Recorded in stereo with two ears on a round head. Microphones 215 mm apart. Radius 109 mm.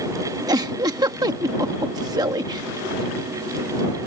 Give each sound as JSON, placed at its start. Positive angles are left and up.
{"t": 0.5, "sound": "a giggle", "side_deg": -15}